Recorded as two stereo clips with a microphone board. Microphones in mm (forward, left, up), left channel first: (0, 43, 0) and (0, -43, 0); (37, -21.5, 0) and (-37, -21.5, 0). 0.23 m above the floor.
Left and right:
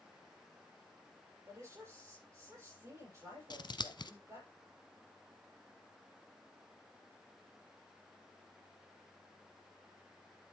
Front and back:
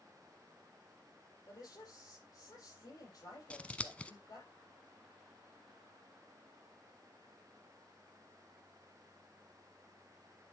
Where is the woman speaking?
35° right, 7.5 m.